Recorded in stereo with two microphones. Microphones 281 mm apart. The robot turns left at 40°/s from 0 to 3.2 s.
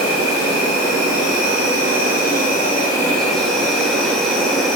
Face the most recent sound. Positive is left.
turn(degrees=0)